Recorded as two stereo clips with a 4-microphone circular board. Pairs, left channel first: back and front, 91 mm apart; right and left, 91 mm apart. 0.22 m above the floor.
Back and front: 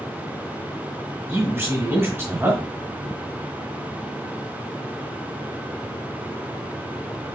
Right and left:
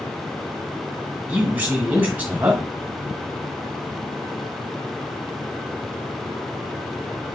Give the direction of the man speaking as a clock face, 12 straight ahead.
11 o'clock.